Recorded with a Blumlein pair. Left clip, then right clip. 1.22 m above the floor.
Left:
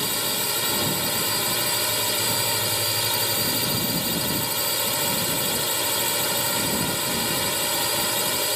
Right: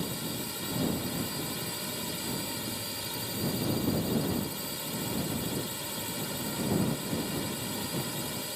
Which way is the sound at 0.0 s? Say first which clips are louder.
Left 11 dB; 30° left.